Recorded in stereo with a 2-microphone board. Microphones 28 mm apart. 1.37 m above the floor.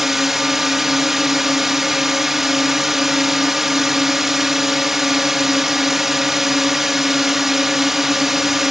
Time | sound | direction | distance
0.0 | a drone | 10° right (ahead or behind) | ?